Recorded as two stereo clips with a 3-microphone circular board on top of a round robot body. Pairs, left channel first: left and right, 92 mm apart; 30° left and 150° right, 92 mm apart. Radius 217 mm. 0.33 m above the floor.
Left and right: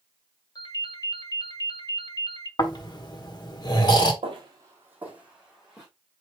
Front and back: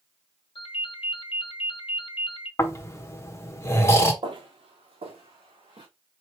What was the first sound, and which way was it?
A ringtone, 45° left.